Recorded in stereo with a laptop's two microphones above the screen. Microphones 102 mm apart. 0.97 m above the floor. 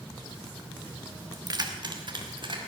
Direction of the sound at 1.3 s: 40° right (ahead or behind).